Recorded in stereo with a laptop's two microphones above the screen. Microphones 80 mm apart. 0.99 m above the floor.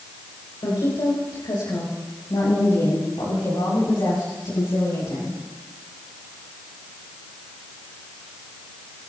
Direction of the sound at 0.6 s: 80° left.